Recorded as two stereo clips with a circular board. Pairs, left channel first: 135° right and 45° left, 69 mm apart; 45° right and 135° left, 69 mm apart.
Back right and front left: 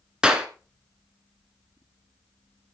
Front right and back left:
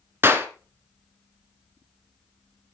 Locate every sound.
0.2 s a clap: 115° left, 1.4 m